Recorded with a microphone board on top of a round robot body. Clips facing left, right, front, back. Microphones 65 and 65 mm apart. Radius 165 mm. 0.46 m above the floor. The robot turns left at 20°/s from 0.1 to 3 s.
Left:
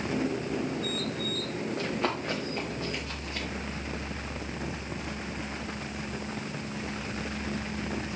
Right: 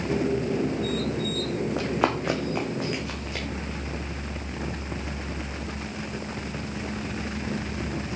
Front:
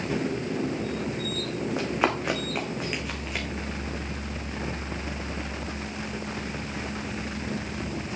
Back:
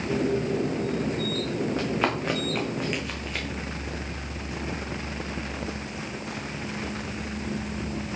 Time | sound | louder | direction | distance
1.8 | running footsteps | right 5 dB, front 3 dB | 75° right | 3 m